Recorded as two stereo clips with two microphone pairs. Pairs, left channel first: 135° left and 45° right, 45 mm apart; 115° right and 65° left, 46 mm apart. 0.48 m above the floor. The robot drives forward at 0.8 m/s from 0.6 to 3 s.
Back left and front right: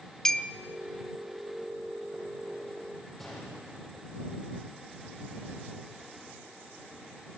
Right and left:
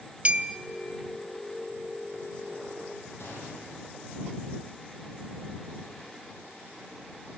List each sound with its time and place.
0.2 s a clink: 65° left, 0.8 m
3.2 s a gunshot: 145° right, 7.5 m